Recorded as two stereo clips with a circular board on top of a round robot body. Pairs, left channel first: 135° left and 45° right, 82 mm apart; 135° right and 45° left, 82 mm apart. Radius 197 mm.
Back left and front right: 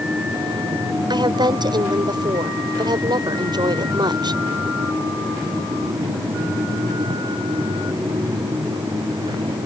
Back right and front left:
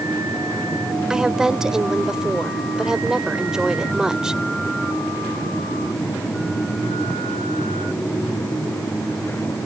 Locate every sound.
1.1 s a woman speaking: 35° right